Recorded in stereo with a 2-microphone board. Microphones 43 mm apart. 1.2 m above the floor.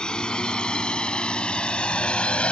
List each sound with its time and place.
0.0 s a drone: 20° left (ahead or behind); by 2.5 s 25° left (ahead or behind)